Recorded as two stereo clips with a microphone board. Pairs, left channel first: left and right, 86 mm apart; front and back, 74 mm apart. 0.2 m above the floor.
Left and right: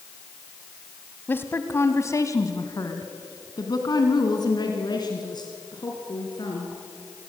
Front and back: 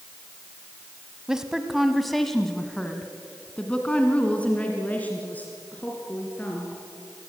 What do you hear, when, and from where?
1.3 s a woman speaking: 110° left, 1.4 m; by 6.8 s 65° left, 3.5 m